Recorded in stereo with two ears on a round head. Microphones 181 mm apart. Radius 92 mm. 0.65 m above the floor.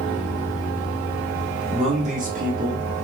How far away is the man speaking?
About 1.3 m.